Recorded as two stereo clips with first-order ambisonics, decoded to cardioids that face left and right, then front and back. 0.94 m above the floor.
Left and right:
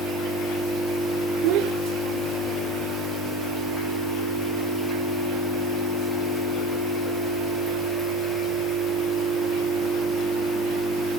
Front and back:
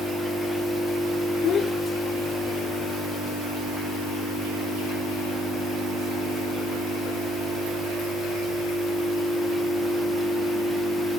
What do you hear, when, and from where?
1.4 s a child speaking: 60° right